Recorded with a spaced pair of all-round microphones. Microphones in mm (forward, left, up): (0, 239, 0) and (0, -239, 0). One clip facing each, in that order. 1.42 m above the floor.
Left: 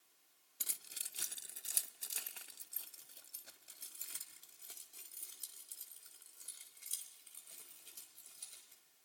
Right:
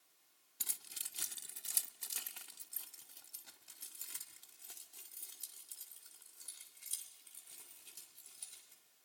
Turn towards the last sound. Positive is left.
turn(degrees=-10)  # may be behind; listen again after turning